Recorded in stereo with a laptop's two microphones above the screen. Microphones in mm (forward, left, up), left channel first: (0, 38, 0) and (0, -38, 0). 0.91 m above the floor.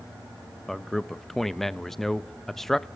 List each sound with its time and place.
0.7 s a man speaking: 5° left (ahead or behind), 0.8 m